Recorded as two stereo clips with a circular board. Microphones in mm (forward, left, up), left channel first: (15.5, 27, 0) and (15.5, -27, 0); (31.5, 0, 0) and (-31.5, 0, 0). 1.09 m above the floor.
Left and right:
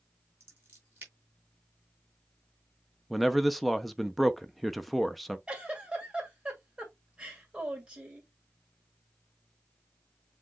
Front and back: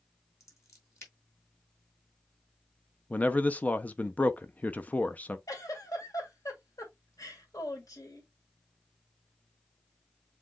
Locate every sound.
0.4 s scissors: 40° right, 3.5 m
3.1 s a man speaking: 5° left, 0.5 m
5.5 s a giggle: 20° right, 1.8 m